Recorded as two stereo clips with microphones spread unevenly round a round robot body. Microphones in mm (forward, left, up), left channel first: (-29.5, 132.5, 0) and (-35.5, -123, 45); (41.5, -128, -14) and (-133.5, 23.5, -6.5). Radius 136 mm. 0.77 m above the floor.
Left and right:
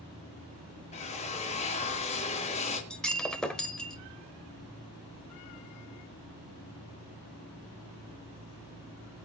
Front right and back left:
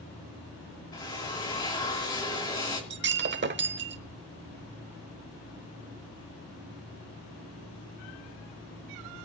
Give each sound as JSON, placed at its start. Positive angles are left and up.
{"t": 0.9, "sound": "a drill", "azimuth_deg": 30, "distance_m": 2.0}
{"t": 2.9, "sound": "breaking glass", "azimuth_deg": 180, "distance_m": 1.1}